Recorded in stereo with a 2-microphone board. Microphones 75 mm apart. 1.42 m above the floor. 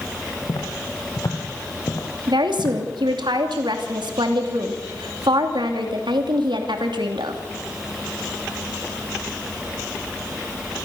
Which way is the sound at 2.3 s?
85° right.